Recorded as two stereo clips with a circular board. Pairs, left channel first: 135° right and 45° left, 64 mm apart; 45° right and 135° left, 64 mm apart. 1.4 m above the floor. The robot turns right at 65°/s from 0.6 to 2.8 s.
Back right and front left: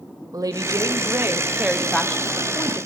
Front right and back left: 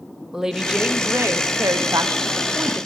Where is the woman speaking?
55° left, 0.7 m; by 2.9 s 165° right, 0.7 m.